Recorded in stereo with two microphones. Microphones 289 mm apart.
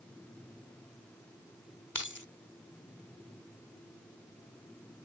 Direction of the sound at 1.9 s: 90° left.